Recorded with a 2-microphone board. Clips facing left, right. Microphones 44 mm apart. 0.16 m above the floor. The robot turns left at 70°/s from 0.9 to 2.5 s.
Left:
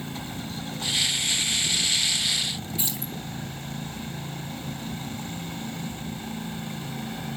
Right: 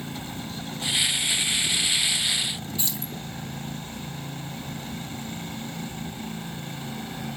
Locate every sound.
2.8 s keys jangling: 15° left (ahead or behind), 3 m